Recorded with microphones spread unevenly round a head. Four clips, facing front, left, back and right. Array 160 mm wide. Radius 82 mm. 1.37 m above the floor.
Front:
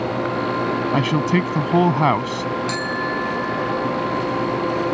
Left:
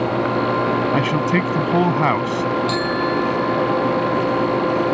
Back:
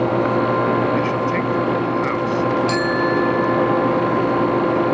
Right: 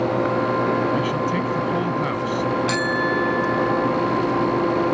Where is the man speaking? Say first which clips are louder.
Left 3 dB, even; 30° left.